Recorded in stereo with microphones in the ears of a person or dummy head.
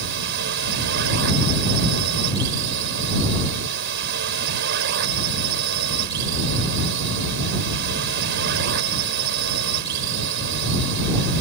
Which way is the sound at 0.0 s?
60° right (ahead or behind).